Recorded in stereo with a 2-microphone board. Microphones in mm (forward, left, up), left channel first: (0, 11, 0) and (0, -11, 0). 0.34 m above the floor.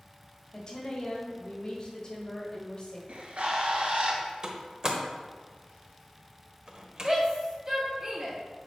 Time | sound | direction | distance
0.5 | a woman speaking | 35° left (ahead or behind) | 1.6 m
3.1 | a bird | 75° right (ahead or behind) | 1.5 m
4.4 | a door slam | 30° right (ahead or behind) | 1.1 m
7.0 | a shout | 30° right (ahead or behind) | 1.8 m